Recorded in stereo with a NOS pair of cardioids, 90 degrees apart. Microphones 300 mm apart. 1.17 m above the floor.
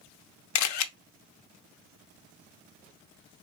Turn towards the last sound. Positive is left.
turn(degrees=65)